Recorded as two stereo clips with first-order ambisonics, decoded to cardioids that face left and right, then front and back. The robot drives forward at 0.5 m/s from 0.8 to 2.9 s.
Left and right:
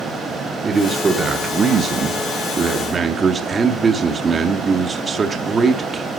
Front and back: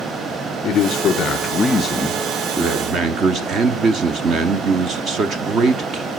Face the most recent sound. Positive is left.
turn(degrees=-150)